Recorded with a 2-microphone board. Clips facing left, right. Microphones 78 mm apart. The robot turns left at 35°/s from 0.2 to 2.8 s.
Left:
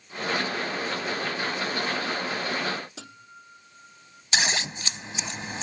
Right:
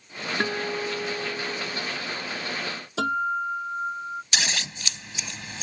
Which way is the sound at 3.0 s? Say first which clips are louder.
Right 23 dB; 75° right (ahead or behind).